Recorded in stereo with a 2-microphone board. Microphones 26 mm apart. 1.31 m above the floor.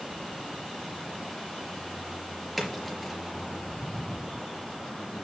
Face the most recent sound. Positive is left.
turn(degrees=5)  # may be behind; listen again after turning